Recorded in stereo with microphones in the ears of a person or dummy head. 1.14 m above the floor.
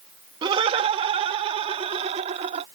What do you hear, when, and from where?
0.4 s laughter: 30° right (ahead or behind); by 2.6 s 35° right (ahead or behind)